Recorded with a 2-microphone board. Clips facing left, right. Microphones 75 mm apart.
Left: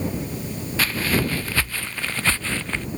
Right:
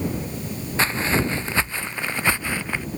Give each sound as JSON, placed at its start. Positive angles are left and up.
{"t": 0.8, "sound": "footsteps", "side_deg": -25}